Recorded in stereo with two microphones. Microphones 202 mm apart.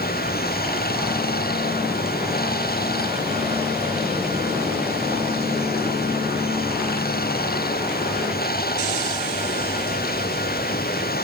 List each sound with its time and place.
0.0 s running water: 55° left (ahead or behind)